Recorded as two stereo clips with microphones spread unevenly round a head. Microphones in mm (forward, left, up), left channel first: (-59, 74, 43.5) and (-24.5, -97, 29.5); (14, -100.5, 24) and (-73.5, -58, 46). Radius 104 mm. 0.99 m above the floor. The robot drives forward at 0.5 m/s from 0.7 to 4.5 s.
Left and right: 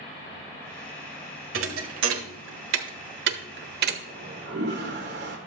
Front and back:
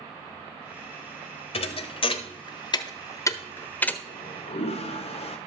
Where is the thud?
45° right, 1.4 m; by 4.0 s 110° right, 1.2 m.